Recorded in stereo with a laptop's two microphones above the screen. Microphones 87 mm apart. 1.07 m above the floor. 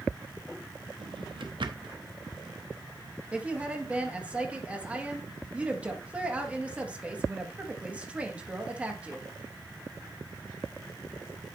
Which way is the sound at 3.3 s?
15° right (ahead or behind).